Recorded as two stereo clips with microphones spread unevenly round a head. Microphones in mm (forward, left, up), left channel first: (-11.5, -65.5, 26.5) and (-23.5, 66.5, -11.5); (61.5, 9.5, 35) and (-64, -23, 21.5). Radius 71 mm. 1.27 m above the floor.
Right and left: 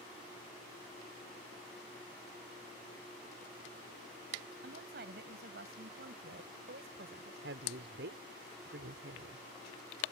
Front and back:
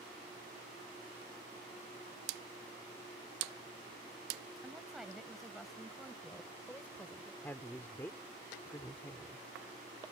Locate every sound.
4.6 s a woman speaking: 105° left; by 7.3 s 90° left
7.4 s a woman speaking: 90° left